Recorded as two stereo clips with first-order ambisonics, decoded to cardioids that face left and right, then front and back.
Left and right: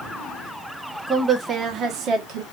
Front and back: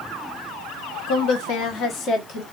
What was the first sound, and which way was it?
A woman speaking, 10° right.